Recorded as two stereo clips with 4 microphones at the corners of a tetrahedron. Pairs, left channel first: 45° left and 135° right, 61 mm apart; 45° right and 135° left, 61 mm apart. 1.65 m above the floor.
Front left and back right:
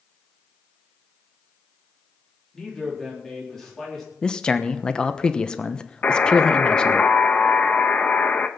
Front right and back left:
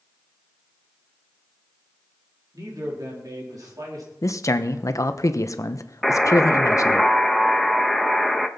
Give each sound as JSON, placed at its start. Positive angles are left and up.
{"t": 2.5, "sound": "a man speaking", "azimuth_deg": 130, "distance_m": 4.5}
{"t": 4.2, "sound": "a man speaking", "azimuth_deg": -30, "distance_m": 1.0}
{"t": 6.0, "sound": "a buzzer", "azimuth_deg": 45, "distance_m": 0.9}